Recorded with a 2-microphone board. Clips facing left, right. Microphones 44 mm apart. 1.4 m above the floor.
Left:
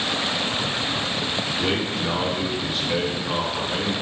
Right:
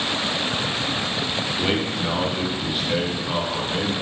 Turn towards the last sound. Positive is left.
turn(degrees=-10)  # may be behind; listen again after turning